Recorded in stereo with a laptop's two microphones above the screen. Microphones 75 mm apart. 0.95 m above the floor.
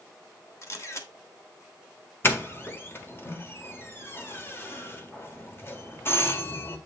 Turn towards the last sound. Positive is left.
turn(degrees=30)  # may be behind; listen again after turning